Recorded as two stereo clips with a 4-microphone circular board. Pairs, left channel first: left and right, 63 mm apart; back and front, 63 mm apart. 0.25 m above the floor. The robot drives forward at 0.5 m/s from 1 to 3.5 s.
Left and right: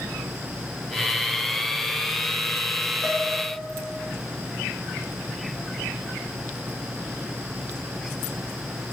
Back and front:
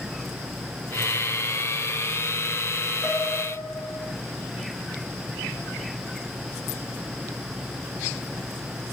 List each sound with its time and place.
3.0 s a piano: 170° left, 3 m